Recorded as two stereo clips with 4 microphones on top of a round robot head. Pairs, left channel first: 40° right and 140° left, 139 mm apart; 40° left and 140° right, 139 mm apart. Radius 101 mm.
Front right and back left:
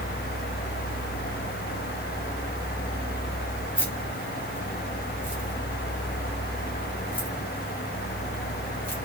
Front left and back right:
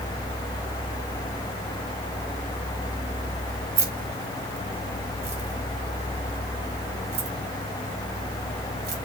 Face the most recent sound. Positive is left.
turn(degrees=-120)